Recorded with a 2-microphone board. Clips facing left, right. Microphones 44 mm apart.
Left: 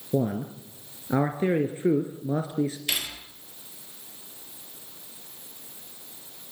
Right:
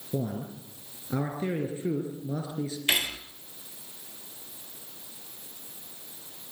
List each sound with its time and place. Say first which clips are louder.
0.1 s a man speaking: left 6 dB; 35° left (ahead or behind), 1.6 m
2.9 s cutlery clinking: right 4 dB; 35° right (ahead or behind), 1.6 m